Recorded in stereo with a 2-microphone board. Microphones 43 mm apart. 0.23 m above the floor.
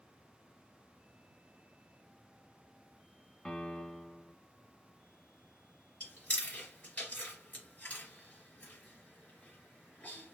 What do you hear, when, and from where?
3.5 s a piano: 20° left (ahead or behind), 0.7 m
6.0 s chewing: 40° left (ahead or behind), 2.5 m